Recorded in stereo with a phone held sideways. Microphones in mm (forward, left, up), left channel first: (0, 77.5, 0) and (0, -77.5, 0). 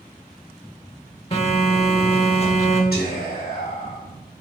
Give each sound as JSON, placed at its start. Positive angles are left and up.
{"t": 1.3, "sound": "a phone buzzing", "side_deg": 40, "distance_m": 1.1}
{"t": 2.9, "sound": "whispering", "side_deg": 75, "distance_m": 2.5}